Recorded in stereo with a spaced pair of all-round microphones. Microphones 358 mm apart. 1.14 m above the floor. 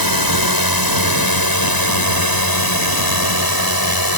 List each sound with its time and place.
0.0 s a drone: 75° left (ahead or behind); by 4.2 s 80° left